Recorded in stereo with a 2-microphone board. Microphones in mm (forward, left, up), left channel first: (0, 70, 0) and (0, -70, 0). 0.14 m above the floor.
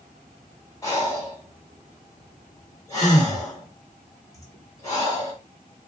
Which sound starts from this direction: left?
Breathing, at 0.8 s.